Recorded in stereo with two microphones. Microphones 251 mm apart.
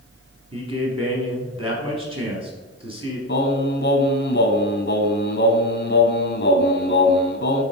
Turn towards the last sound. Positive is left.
turn(degrees=40)  # may be behind; listen again after turning